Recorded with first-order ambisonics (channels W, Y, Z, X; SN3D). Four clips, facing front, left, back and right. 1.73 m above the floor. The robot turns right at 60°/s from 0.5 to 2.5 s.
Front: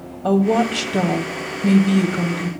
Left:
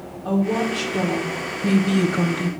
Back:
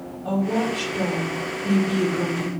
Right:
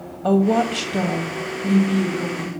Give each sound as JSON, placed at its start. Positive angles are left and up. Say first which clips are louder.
{"t": 0.2, "sound": "a woman speaking", "louder": "right 4 dB, front 6 dB", "azimuth_deg": -45, "distance_m": 2.0}